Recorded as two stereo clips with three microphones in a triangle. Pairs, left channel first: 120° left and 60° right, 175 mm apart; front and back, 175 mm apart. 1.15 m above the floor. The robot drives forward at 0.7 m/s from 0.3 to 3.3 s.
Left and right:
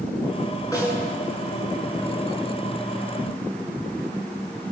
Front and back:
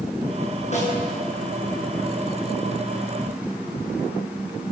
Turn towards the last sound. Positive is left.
turn(degrees=60)